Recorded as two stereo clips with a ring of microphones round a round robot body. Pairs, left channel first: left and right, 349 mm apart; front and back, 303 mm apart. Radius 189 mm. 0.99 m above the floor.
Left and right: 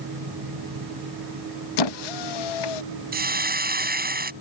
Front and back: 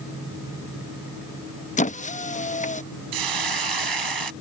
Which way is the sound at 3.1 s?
155° right.